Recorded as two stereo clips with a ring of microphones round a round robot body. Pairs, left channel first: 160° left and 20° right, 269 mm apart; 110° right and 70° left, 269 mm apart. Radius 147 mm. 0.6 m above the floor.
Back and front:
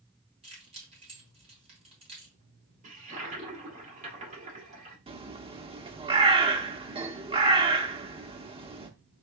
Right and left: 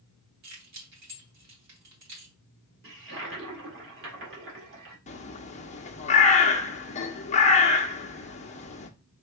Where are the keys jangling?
45° left, 2.5 m.